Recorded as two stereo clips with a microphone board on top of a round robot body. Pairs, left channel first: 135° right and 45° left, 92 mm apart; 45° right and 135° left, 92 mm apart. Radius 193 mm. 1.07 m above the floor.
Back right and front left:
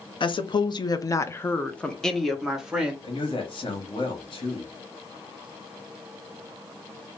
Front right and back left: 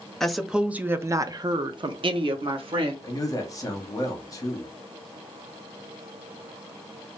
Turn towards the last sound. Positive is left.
turn(degrees=-100)